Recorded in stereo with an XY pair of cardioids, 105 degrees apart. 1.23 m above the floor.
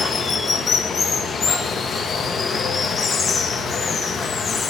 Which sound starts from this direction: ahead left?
Running water, at 0.0 s.